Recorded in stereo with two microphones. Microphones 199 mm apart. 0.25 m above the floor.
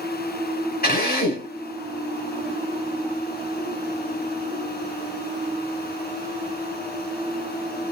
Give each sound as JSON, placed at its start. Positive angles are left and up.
{"t": 0.8, "sound": "a drill", "side_deg": 45, "distance_m": 1.5}